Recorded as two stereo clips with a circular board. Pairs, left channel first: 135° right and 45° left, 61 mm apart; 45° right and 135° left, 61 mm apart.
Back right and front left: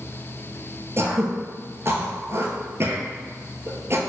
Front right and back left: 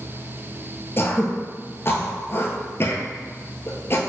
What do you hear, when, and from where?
1.0 s throat clearing: straight ahead, 0.8 m